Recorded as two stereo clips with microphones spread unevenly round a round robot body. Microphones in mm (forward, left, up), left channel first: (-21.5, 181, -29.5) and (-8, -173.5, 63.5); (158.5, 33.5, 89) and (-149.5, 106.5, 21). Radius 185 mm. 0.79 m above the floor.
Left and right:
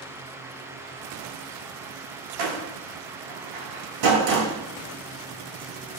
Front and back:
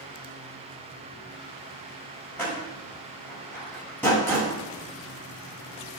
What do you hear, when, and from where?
2.4 s a door slam: 100° right, 6 m